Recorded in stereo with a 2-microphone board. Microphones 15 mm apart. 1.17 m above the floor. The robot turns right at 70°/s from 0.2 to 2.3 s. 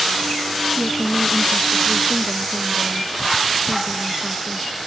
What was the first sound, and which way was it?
A woman speaking, 160° right.